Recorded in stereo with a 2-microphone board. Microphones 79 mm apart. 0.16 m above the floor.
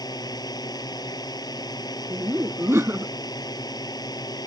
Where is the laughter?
30° right (ahead or behind).